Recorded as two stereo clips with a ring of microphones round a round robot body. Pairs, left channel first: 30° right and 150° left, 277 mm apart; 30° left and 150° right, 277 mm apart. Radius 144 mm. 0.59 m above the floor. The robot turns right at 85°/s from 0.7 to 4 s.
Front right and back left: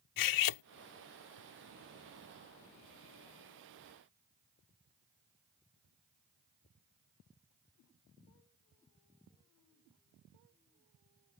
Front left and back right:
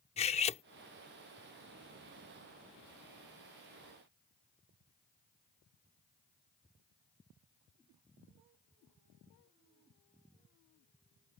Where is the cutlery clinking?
40° right.